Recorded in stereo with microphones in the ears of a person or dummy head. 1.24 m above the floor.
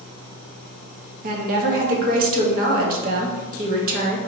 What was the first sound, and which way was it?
A woman speaking, 40° right (ahead or behind).